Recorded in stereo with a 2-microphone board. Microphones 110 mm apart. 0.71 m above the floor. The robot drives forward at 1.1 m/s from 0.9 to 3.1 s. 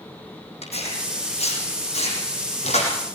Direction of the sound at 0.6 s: 70° left (ahead or behind).